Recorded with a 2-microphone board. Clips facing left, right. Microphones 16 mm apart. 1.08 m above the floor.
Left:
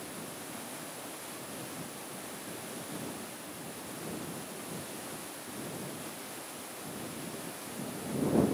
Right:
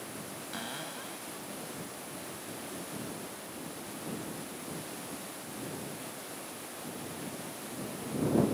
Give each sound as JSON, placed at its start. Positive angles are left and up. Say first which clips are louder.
{"t": 0.5, "sound": "a cupboard door", "louder": "right 4 dB", "side_deg": -60}